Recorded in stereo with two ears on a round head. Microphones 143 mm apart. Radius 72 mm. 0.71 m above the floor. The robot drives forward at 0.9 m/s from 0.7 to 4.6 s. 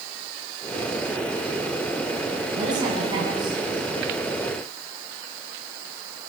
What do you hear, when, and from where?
2.5 s a man speaking: 25° right (ahead or behind), 7 m; by 4.2 s 30° right (ahead or behind), 5.5 m